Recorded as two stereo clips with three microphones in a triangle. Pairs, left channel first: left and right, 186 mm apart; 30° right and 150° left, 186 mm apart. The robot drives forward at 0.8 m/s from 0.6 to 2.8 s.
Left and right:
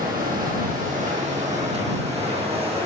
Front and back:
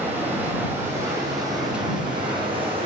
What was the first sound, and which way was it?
Running water, 130° right.